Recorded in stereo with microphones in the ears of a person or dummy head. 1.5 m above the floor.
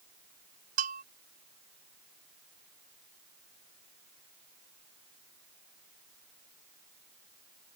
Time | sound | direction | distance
0.8 | a bell | 45° right (ahead or behind) | ?